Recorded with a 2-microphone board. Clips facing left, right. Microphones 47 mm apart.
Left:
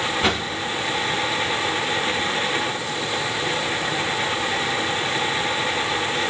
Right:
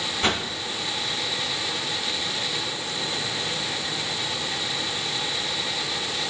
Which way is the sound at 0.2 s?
5° left (ahead or behind).